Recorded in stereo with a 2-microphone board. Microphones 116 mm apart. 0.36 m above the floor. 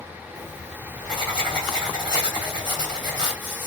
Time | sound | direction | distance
0.3 | writing | 40° right (ahead or behind) | 1.6 m